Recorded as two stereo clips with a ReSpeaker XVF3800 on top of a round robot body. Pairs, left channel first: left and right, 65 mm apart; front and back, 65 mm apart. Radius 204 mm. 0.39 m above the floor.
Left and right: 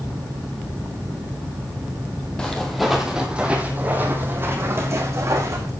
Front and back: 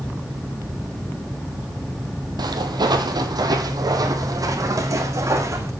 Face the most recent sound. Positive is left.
turn(degrees=-135)